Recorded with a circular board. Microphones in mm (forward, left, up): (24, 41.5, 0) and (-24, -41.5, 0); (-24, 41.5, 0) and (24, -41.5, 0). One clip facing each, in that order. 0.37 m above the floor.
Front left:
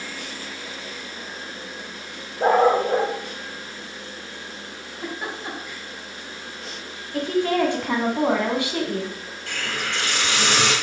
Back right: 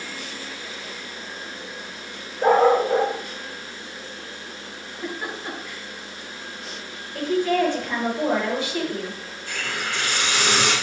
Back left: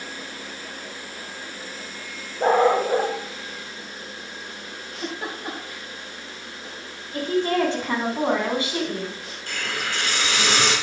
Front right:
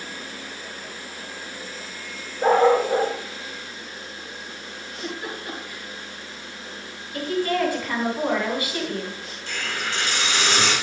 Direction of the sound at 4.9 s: 130° left.